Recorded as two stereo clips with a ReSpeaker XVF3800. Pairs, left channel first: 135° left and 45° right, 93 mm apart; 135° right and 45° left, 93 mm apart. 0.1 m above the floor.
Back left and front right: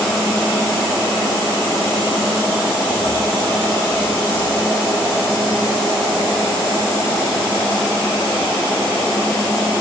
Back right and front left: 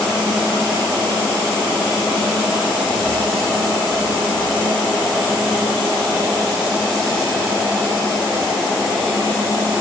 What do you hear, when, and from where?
Only background noise.